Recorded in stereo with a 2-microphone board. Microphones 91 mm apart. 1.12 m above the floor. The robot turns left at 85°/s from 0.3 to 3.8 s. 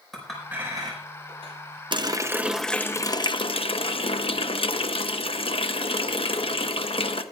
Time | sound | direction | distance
0.1 | a clink | centre (ahead or behind) | 5 m
1.9 | a running tap | 120° right | 0.8 m